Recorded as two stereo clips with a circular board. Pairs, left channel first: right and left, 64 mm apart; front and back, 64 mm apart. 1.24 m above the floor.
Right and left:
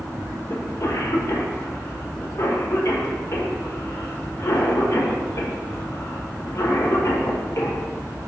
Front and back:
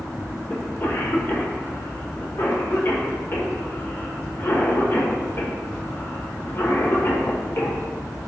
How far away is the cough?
About 1.5 m.